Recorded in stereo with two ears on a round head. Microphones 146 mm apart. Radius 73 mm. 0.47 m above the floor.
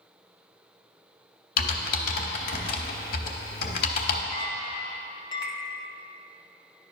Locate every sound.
1.6 s typing on a keyboard: 65° left (ahead or behind), 0.8 m
4.3 s a clink: 30° left (ahead or behind), 0.7 m